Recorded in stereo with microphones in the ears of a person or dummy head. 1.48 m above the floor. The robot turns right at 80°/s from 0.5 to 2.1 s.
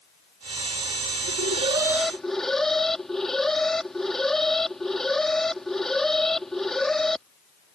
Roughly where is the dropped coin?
No dropped coin in this recording.